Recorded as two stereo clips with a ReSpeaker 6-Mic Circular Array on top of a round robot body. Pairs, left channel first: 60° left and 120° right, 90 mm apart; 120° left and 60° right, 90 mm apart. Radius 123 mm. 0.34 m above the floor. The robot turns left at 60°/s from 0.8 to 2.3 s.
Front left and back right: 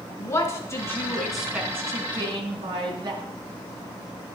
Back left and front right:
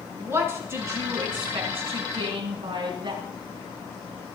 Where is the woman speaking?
Straight ahead, 5 m; by 3.2 s 90° right, 5 m.